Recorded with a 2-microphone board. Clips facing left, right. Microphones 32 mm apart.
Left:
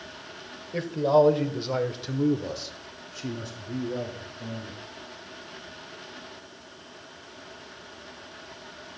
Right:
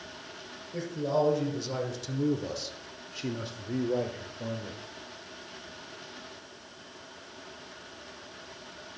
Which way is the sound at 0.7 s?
50° left (ahead or behind).